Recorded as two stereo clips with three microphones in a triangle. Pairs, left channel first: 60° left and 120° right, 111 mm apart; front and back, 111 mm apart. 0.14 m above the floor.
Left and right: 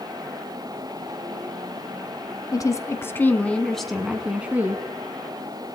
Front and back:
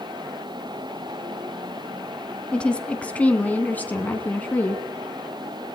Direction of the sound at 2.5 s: 75° left.